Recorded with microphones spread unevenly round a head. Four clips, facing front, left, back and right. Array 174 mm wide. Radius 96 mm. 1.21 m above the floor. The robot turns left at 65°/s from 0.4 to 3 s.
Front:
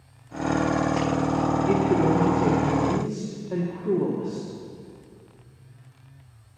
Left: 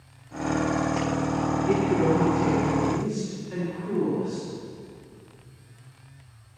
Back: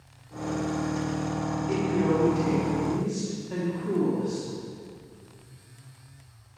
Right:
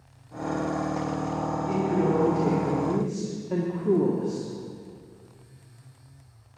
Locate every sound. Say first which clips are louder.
1.7 s a woman speaking: left 2 dB, front 2 dB; 20° left, 2 m; by 4.5 s 70° right, 2 m